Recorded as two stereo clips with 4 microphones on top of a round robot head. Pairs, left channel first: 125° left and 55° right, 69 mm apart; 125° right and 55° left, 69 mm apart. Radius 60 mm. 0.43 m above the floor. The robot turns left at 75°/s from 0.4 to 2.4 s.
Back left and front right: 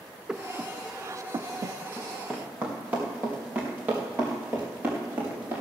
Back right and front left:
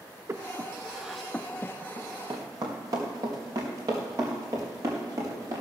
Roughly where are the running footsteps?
Ahead left.